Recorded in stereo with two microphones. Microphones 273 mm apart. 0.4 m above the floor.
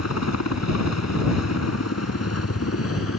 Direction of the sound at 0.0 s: 70° left (ahead or behind).